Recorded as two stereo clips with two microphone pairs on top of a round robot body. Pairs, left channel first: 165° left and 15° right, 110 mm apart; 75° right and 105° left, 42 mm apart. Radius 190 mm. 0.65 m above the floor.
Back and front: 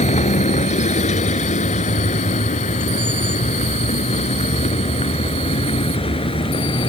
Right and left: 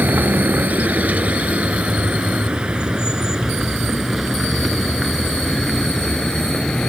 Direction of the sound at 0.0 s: 150° left.